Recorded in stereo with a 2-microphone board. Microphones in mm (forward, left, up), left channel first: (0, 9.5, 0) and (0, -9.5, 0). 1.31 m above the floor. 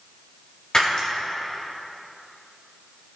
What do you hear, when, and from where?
0.7 s breaking glass: 40° left (ahead or behind), 2.5 m